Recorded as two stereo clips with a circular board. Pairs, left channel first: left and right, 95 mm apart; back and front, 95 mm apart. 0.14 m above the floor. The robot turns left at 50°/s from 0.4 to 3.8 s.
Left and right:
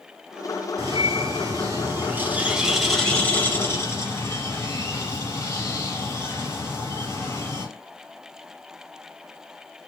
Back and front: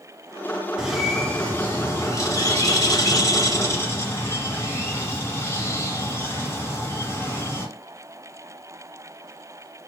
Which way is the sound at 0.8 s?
75° right.